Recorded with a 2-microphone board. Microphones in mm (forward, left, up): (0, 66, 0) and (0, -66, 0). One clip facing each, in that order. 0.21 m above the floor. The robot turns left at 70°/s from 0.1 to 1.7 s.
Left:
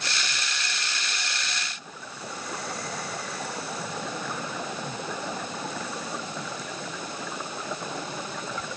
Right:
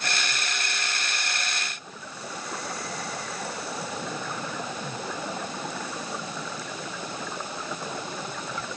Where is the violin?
I don't hear a violin.